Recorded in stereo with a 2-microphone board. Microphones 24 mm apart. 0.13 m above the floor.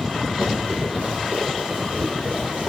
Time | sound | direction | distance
0.4 | running footsteps | 65° right (ahead or behind) | 6.5 m